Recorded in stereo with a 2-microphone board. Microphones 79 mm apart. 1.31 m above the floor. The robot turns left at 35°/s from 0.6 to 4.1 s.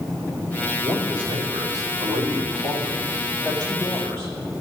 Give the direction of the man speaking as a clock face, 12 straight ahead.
1 o'clock.